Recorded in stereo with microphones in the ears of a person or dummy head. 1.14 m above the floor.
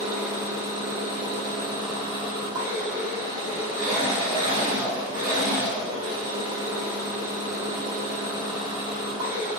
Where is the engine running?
20° right (ahead or behind), 1.0 m.